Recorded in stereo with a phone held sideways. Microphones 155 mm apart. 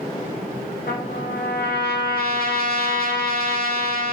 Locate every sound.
0.9 s a trumpet: 70° left (ahead or behind), 1.7 m